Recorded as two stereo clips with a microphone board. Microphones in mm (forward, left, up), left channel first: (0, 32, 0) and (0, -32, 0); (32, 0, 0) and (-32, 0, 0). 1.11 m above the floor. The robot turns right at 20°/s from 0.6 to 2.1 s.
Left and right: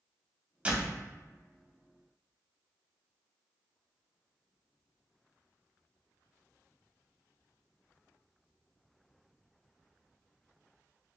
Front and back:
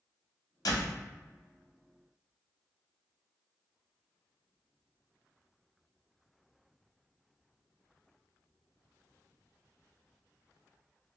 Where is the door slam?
20° right, 0.6 m; by 1.0 s 15° right, 0.6 m.